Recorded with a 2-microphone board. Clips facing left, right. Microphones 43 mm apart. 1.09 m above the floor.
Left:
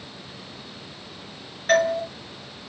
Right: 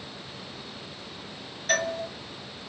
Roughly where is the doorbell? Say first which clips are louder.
Left 7 dB; left.